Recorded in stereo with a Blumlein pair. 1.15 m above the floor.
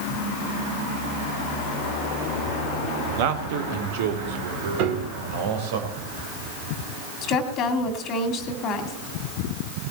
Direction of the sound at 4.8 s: 40° right.